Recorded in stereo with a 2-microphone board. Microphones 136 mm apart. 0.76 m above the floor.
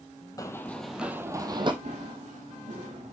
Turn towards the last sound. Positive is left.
turn(degrees=-60)  # may be behind; listen again after turning